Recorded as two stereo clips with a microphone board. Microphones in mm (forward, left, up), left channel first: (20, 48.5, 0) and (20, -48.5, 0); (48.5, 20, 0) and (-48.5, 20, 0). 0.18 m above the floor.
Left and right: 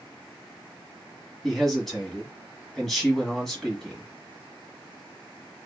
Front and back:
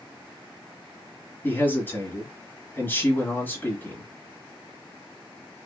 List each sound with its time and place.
1.4 s a man speaking: 10° left, 1.6 m